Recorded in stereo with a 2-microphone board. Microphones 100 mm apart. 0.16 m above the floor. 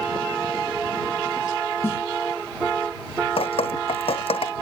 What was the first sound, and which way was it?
A snare drum, 25° left (ahead or behind).